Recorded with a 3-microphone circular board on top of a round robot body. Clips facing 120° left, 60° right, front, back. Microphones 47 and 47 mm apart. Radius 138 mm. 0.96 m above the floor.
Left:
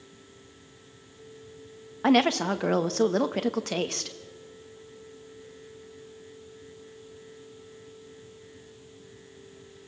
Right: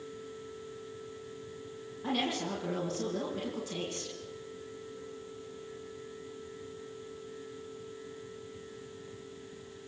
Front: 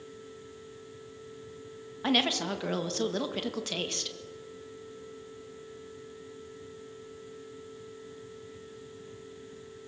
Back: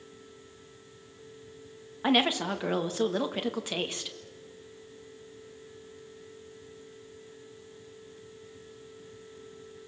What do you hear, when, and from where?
2.0 s a woman speaking: 105° left, 1.8 m